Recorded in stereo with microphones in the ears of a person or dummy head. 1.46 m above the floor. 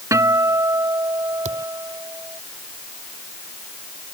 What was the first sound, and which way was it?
A guitar, 10° right (ahead or behind).